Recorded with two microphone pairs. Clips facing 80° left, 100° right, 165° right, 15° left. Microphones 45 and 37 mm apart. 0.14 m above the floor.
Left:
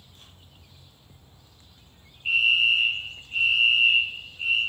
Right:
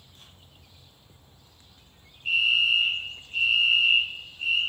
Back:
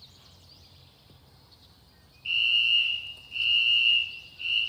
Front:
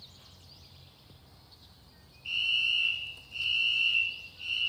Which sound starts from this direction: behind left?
A fire alarm, at 2.2 s.